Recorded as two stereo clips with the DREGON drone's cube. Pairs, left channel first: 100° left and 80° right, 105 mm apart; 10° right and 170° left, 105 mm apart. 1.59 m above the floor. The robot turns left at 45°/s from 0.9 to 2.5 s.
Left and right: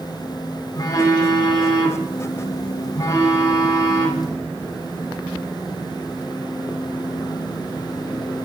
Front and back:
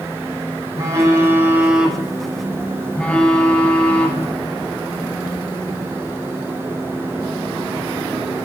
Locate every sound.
0.8 s a phone buzzing: 135° left, 1.0 m; by 4.3 s 60° left, 1.0 m